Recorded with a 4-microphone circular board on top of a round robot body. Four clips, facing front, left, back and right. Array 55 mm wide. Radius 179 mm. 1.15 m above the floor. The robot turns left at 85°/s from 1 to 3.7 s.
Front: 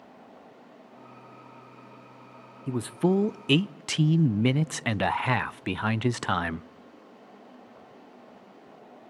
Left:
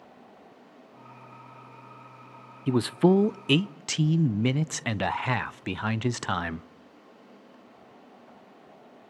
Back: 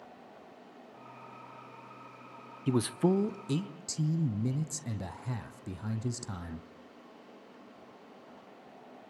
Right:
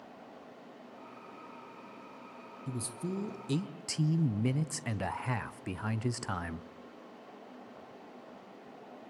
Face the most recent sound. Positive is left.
turn(degrees=25)